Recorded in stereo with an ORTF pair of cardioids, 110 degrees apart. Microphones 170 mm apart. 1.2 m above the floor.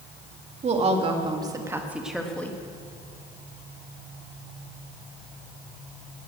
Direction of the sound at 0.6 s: 40° right.